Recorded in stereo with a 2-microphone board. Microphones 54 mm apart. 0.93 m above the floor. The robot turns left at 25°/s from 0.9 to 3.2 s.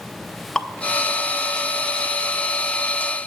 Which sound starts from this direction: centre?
Dripping, at 0.6 s.